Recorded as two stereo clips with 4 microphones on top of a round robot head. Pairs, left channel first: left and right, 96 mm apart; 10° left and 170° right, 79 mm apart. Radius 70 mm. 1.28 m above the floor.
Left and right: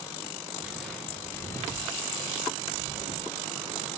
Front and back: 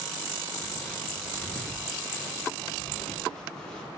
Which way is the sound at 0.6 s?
10° right.